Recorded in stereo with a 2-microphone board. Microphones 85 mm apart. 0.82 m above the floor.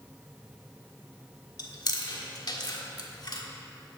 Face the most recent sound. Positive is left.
turn(degrees=50)  # may be behind; listen again after turning